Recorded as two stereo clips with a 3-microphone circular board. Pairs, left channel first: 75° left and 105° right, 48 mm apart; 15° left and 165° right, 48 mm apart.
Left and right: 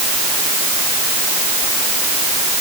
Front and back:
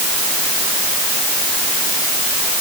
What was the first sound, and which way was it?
Only background noise.